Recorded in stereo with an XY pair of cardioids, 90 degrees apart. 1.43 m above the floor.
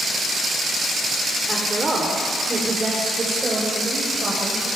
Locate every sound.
1.5 s a woman speaking: 25° right, 3.5 m; by 4.7 s 40° right, 6 m